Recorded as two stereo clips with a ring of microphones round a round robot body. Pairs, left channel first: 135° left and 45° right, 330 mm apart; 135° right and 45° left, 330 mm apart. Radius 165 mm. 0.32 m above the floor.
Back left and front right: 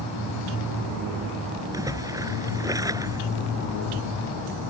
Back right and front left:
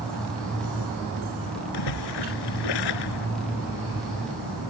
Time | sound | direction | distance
1.7 | a splash | 125° right | ?